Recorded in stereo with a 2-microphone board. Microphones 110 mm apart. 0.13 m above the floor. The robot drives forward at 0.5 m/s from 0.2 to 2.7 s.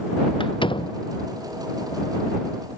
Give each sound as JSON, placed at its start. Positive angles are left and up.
{"t": 0.4, "sound": "a door slam", "side_deg": 50}